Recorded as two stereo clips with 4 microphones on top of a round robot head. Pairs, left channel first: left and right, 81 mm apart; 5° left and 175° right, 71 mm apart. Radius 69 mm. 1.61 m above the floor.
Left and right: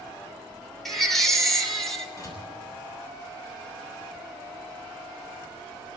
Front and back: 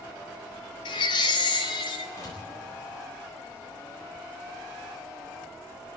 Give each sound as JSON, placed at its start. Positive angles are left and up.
{"t": 0.8, "sound": "a baby crying", "azimuth_deg": 5, "distance_m": 2.5}
{"t": 2.2, "sound": "a door slam", "azimuth_deg": 40, "distance_m": 7.5}